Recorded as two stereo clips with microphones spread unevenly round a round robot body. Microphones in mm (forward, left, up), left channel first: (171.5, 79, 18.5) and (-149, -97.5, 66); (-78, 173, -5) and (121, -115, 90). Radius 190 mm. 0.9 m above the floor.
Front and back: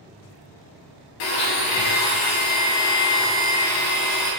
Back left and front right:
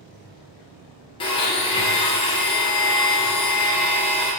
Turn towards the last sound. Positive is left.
turn(degrees=50)